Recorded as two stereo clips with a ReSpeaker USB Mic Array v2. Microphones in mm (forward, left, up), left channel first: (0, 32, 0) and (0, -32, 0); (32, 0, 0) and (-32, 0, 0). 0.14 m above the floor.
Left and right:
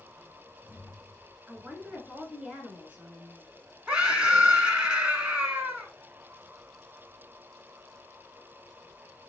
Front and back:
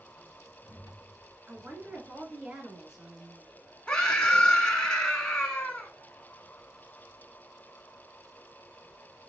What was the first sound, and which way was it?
A woman speaking, 115° right.